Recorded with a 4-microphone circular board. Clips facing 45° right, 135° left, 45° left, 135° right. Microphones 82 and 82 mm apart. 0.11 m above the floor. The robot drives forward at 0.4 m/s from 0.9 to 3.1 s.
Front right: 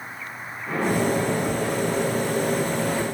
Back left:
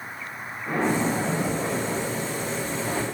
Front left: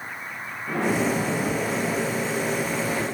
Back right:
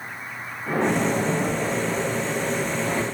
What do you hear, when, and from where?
0.7 s a splash: 165° right, 7.5 m